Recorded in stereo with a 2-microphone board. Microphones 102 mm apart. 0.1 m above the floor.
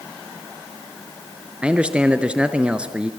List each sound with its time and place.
1.6 s a man speaking: 10° right (ahead or behind), 1.1 m